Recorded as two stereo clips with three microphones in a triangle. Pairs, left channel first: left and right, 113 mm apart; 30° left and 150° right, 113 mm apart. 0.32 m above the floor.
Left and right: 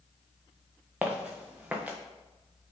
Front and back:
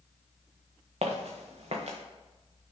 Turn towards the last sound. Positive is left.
turn(degrees=-165)